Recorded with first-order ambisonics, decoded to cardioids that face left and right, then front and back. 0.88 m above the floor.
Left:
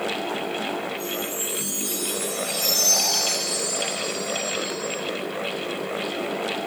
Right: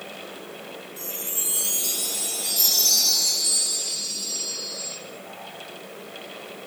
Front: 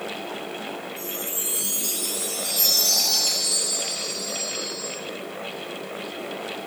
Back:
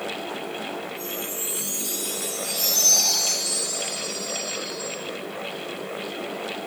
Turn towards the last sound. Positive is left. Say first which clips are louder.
# left 4 dB, even
turn(degrees=-60)